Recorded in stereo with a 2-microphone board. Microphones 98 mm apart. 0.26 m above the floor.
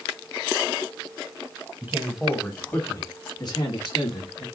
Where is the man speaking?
20° right (ahead or behind), 1.6 m; by 4.5 s 65° left (ahead or behind), 3 m.